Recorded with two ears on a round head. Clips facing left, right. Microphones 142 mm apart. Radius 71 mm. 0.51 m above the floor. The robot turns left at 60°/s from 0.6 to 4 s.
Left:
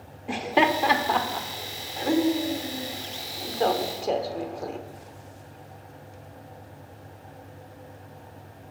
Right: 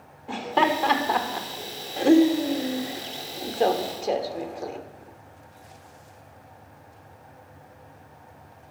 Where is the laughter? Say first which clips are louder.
Even; 20° left (ahead or behind), 1.0 m; by 4.8 s centre (ahead or behind), 1.0 m.